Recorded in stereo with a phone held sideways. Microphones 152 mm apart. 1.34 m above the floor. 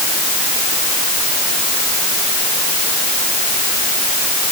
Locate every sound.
Only background noise.